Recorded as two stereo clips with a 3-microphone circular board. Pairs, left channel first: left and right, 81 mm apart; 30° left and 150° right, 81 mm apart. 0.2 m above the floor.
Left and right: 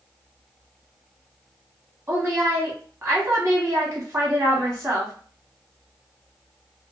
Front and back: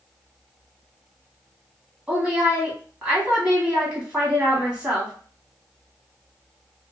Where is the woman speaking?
85° right, 1.2 m.